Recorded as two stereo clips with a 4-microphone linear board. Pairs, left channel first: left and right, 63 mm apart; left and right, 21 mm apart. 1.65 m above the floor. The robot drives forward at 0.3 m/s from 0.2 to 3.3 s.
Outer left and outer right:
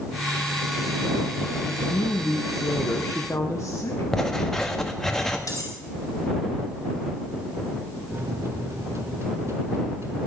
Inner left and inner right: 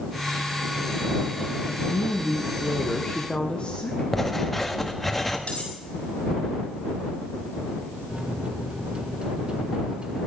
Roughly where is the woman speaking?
Left.